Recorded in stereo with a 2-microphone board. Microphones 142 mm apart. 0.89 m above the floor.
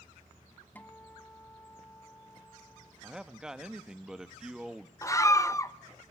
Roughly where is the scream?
Left.